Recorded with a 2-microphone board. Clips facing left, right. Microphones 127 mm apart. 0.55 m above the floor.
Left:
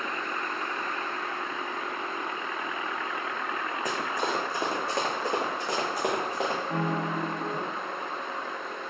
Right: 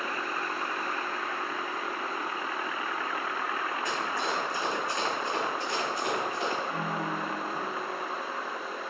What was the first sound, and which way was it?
Running footsteps, 40° left (ahead or behind).